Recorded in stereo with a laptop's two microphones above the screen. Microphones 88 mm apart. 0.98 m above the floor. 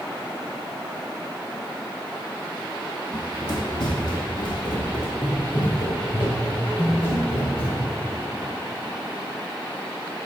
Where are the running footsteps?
45° left (ahead or behind), 1.6 m; by 8.0 s 75° left (ahead or behind), 5.5 m.